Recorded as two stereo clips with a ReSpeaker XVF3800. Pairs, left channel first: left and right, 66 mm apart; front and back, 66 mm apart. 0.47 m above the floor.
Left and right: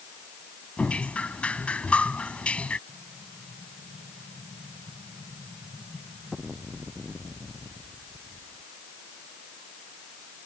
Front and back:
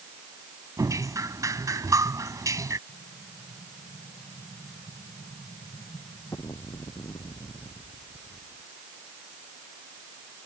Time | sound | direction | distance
0.8 | dripping | 160° left | ?
2.9 | an explosion | straight ahead | ?